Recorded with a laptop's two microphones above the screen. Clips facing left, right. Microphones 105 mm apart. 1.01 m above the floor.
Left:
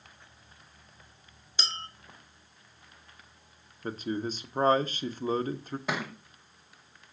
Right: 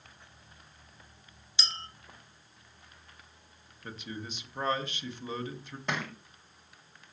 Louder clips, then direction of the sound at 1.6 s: Left 3 dB; 50° left (ahead or behind).